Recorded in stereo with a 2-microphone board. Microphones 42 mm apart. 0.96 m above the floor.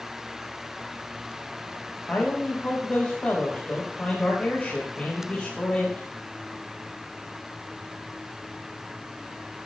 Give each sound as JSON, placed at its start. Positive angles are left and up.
{"t": 2.1, "sound": "a man speaking", "side_deg": 25, "distance_m": 5.5}